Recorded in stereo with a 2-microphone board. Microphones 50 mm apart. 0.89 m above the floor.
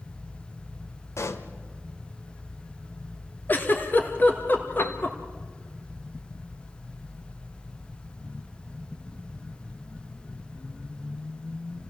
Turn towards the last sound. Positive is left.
turn(degrees=50)  # may be behind; listen again after turning